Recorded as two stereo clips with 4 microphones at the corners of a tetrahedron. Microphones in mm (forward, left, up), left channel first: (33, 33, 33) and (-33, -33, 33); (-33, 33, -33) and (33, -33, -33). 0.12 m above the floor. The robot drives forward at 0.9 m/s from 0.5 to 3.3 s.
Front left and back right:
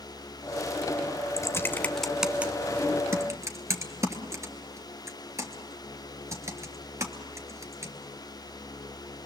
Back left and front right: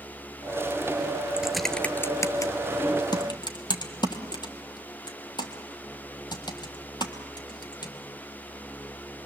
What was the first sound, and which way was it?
Typing on a keyboard, 30° left.